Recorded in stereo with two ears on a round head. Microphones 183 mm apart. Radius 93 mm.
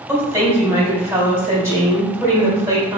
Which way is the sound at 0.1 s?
15° right (ahead or behind).